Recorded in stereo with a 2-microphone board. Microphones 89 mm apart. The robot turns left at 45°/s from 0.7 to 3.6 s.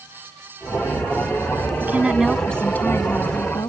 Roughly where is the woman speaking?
Behind right.